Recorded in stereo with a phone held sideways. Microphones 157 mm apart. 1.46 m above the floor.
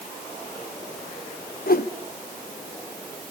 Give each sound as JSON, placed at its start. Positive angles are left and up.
{"t": 1.7, "sound": "a whoosh", "side_deg": 65, "distance_m": 0.9}